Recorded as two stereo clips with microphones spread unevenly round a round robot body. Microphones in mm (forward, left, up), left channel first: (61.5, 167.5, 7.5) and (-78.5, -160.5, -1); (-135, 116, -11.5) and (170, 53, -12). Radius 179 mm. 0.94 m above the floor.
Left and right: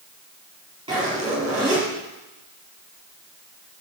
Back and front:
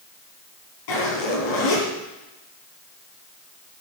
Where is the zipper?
170° left, 5 m.